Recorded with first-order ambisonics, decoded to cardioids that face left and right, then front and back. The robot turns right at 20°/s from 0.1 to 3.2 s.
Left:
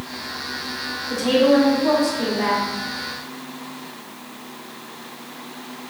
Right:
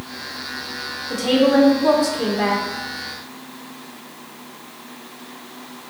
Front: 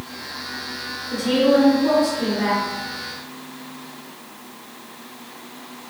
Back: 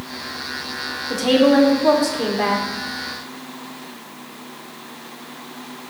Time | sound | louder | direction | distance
1.1 | a woman speaking | even, back 2 dB | 165° right | 1.7 m